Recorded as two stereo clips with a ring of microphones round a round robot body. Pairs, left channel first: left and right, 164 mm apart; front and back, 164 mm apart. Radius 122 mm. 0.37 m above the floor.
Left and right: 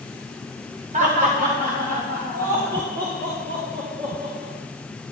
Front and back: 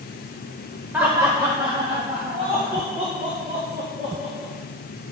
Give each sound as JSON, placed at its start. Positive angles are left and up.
{"t": 0.9, "sound": "laughter", "azimuth_deg": -105, "distance_m": 1.2}